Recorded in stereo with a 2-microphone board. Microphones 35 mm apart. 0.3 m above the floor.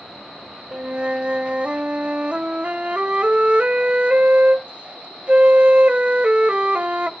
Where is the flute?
35° right (ahead or behind), 0.6 m.